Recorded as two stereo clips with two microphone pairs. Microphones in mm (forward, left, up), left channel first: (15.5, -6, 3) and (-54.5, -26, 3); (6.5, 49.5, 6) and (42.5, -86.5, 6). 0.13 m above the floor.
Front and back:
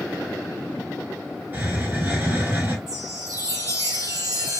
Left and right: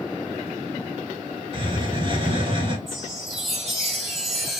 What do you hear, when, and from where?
1.5 s a hiss: 110° right, 1.0 m
2.9 s a chime: 165° right, 1.5 m